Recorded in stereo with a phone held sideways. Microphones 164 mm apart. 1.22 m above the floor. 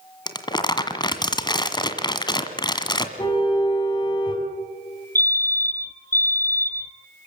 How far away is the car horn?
About 6 m.